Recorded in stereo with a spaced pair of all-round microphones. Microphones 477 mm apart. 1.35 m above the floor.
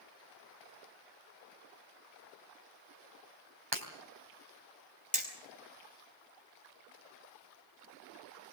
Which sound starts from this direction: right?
Breaking glass, at 3.7 s.